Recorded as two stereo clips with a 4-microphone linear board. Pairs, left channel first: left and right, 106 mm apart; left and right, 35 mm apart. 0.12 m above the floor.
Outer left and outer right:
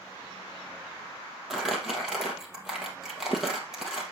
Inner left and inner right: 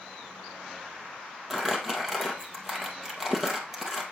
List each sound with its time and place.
1.5 s crumpling: centre (ahead or behind), 2 m